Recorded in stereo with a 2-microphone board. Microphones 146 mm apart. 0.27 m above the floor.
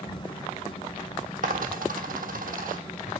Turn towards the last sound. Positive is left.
turn(degrees=-75)  # may be behind; listen again after turning